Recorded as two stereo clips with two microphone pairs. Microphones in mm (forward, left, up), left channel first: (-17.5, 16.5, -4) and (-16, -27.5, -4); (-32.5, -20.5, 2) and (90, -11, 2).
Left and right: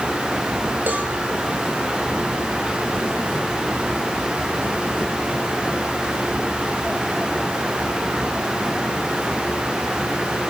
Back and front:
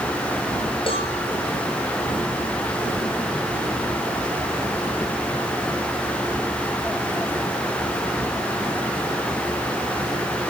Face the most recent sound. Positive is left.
turn(degrees=-135)